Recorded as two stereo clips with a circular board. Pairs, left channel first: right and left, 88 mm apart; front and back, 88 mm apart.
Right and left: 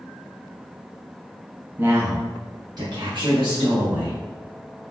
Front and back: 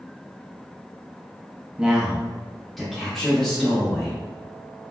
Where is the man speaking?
115° left, 0.7 m; by 4.2 s 85° left, 1.7 m.